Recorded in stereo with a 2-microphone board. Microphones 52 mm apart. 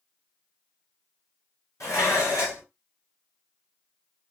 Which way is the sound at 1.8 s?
90° left.